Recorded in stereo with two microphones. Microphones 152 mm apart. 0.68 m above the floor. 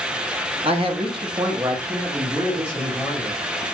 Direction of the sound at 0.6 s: 40° right (ahead or behind).